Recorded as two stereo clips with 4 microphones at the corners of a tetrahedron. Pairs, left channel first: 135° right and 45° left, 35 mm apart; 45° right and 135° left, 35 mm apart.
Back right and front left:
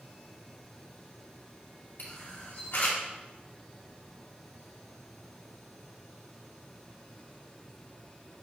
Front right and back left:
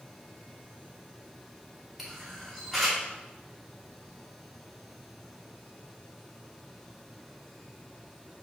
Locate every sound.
2.0 s a camera shutter: 140° right, 1.4 m